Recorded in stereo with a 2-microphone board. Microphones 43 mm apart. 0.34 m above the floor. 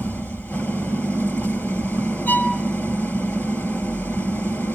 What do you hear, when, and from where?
0.0 s an engine running: 55° left (ahead or behind), 2 m
2.3 s a violin: 45° left (ahead or behind), 3 m